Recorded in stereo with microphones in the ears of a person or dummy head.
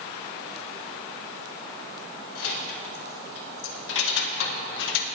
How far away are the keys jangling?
About 3.5 m.